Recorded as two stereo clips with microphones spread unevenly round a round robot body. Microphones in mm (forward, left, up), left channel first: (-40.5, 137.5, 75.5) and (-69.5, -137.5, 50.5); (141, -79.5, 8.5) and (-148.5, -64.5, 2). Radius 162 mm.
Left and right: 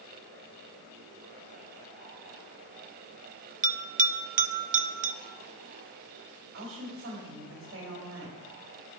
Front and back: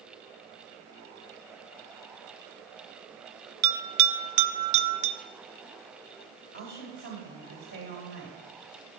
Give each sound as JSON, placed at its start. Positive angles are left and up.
{"t": 3.6, "sound": "a bell", "azimuth_deg": -160, "distance_m": 0.5}
{"t": 6.5, "sound": "a woman speaking", "azimuth_deg": -140, "distance_m": 2.0}